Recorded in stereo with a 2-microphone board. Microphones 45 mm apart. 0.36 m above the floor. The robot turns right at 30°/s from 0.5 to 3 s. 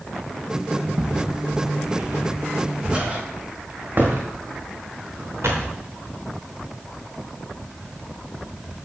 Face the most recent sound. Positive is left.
turn(degrees=-70)  # may be behind; listen again after turning